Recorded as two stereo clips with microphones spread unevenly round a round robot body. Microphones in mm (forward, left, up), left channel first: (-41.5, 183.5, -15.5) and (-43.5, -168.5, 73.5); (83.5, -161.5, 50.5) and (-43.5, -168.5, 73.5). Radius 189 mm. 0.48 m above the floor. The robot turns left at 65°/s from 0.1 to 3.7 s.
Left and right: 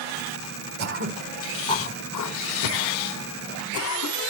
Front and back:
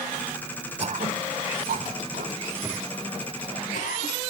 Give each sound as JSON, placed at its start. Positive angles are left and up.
{"t": 0.8, "sound": "throat clearing", "azimuth_deg": -135, "distance_m": 1.8}